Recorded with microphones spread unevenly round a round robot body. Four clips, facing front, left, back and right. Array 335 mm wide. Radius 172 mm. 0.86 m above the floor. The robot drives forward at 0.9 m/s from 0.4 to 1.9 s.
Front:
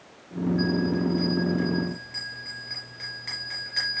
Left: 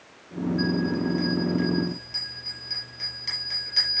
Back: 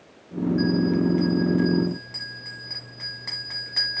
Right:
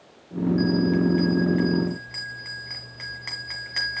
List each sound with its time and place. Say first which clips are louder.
0.6 s a bell: right 4 dB, back 4 dB; 130° right, 1.1 m; by 4.0 s 155° right, 2 m